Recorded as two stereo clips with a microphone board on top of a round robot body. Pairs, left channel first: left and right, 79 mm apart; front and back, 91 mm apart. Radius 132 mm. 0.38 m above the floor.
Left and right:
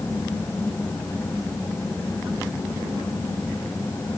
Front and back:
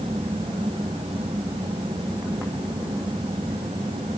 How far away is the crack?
I don't hear a crack.